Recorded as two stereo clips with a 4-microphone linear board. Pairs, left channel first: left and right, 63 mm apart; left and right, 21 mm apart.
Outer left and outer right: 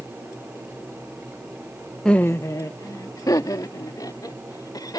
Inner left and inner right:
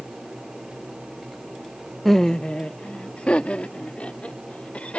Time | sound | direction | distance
2.0 | laughter | 10° left (ahead or behind) | ?